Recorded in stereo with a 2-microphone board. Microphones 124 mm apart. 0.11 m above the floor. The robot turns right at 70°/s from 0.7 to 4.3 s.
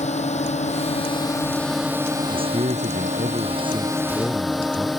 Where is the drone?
105° left; by 5.0 s straight ahead.